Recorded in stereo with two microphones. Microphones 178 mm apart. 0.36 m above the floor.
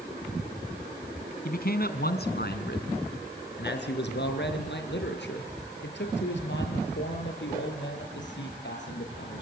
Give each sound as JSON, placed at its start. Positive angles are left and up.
{"t": 1.4, "sound": "a man speaking", "side_deg": 55, "distance_m": 2.5}